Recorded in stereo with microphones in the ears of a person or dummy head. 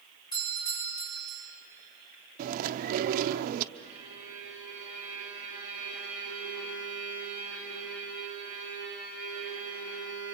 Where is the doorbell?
25° left (ahead or behind), 10 m.